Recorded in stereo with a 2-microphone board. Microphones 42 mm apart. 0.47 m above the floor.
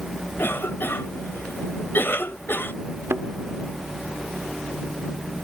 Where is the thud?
70° right (ahead or behind).